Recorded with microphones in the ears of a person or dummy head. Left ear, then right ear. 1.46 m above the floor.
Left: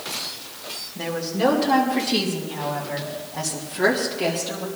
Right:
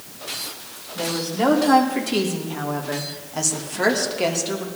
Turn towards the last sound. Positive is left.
turn(degrees=-70)  # may be behind; listen again after turning